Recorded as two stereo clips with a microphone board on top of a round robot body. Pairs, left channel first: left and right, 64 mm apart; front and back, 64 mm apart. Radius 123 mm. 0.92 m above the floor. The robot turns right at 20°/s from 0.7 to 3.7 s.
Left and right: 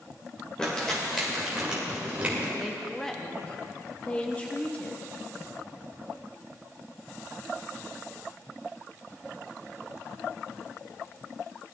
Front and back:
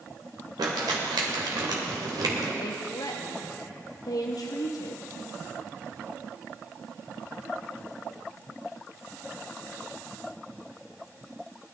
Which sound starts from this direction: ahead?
A woman speaking, at 2.6 s.